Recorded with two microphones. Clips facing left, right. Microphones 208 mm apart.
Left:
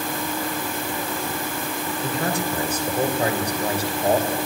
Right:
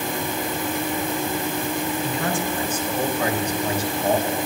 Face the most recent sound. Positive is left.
turn(degrees=35)  # may be behind; listen again after turning